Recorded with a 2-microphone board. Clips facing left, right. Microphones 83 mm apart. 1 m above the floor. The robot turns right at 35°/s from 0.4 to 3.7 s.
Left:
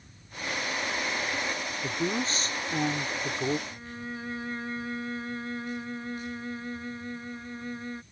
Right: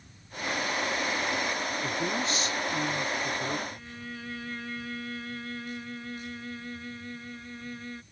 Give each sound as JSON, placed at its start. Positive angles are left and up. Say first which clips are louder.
{"t": 1.8, "sound": "a woman speaking", "louder": "left 3 dB", "azimuth_deg": 20}
{"t": 3.7, "sound": "a violin", "louder": "left 3 dB", "side_deg": 25}